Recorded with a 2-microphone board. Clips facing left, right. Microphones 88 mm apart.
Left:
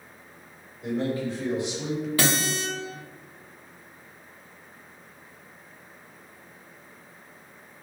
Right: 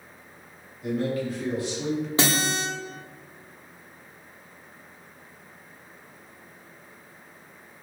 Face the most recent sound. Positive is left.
turn(degrees=-25)  # may be behind; listen again after turning